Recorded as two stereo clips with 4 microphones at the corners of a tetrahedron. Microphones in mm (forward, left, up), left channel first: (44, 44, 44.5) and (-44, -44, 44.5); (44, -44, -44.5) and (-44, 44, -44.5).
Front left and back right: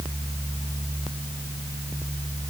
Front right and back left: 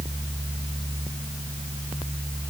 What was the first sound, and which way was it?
Only background noise.